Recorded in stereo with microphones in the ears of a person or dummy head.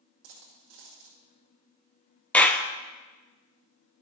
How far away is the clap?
About 0.5 m.